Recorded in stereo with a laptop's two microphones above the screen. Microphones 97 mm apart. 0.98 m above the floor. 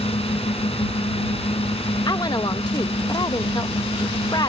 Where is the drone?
80° left.